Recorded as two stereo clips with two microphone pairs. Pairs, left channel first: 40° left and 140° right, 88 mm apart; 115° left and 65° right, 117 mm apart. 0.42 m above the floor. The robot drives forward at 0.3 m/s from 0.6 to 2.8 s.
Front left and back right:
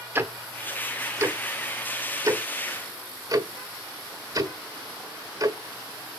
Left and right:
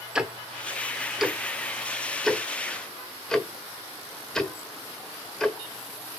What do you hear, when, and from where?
0.1 s ticking: 140° right, 1.1 m; by 5.6 s 165° right, 1.4 m